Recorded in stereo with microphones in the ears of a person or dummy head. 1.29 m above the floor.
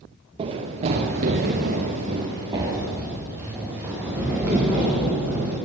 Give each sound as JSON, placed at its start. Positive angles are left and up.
{"t": 0.4, "sound": "running footsteps", "side_deg": -30, "distance_m": 1.8}